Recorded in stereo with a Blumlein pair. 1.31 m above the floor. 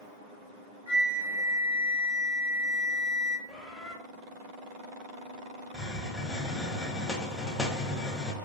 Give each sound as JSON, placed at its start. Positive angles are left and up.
{"t": 0.9, "sound": "a flute", "azimuth_deg": -65, "distance_m": 1.8}
{"t": 3.5, "sound": "a bird", "azimuth_deg": 10, "distance_m": 1.0}
{"t": 5.7, "sound": "a hiss", "azimuth_deg": 10, "distance_m": 0.6}